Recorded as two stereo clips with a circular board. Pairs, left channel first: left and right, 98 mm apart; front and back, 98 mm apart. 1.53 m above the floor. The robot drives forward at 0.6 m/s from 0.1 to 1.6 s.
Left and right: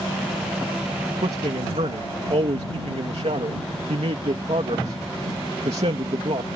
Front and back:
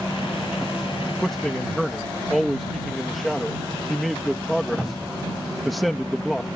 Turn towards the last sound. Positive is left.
turn(degrees=-90)